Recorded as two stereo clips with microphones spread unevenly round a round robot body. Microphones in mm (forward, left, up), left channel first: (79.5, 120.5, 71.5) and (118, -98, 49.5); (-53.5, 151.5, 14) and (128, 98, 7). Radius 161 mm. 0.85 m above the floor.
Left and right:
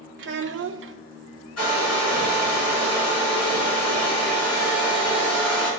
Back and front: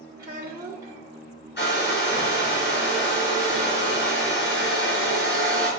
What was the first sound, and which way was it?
A child speaking, 90° right.